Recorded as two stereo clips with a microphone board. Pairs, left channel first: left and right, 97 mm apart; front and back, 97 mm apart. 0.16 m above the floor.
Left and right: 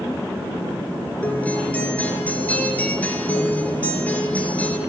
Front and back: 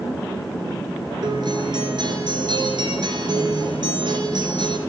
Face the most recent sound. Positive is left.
turn(degrees=160)